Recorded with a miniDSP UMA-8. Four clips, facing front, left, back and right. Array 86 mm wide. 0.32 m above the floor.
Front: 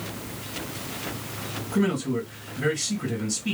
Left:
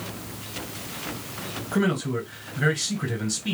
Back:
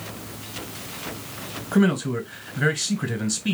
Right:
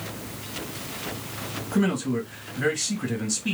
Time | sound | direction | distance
1.7 | a man speaking | 175° left | 1.6 m